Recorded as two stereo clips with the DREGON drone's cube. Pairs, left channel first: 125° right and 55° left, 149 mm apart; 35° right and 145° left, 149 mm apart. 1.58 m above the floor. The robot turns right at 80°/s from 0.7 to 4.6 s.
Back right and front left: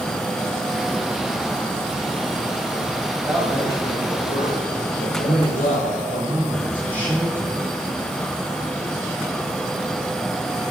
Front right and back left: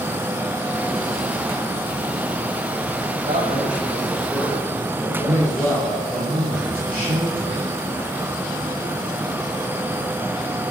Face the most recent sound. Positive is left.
turn(degrees=130)